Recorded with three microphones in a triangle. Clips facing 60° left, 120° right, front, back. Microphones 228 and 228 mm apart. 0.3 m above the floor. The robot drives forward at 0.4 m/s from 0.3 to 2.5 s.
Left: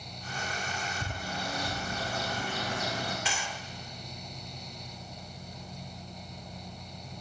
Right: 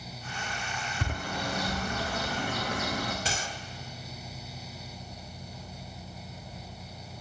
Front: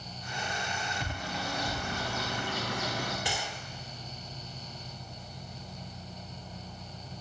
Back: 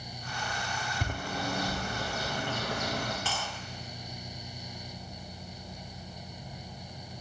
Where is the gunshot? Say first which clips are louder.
Right 2 dB, front 1 dB; 70° right, 0.7 m.